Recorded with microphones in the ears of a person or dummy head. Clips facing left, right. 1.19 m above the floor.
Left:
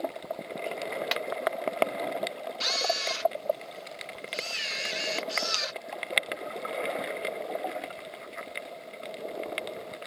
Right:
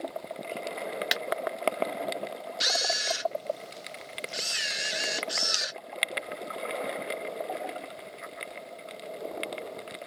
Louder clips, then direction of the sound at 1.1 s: Left 2 dB; 20° right (ahead or behind).